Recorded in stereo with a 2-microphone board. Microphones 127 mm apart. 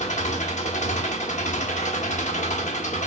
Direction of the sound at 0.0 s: 85° left.